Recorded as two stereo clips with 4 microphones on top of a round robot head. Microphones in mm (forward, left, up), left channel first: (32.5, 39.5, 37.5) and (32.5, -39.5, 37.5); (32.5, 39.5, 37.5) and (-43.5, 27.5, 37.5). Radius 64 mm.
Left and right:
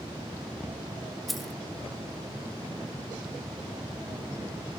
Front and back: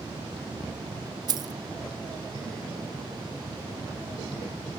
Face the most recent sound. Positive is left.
turn(degrees=175)